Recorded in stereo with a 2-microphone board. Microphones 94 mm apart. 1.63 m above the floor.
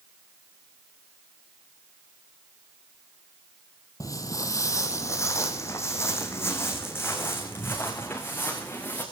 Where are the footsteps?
35° left (ahead or behind), 2 m; by 9.0 s 20° left (ahead or behind), 6.5 m.